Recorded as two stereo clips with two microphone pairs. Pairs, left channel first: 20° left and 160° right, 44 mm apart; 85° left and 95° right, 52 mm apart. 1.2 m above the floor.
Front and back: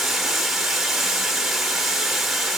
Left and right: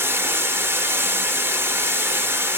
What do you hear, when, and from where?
0.0 s running water: 75° right, 0.7 m